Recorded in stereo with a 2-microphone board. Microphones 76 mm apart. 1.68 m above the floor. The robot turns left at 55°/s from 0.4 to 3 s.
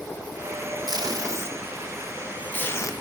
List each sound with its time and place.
0.9 s tape being pulled: 65° right (ahead or behind), 0.7 m; by 2.9 s 45° left (ahead or behind), 0.7 m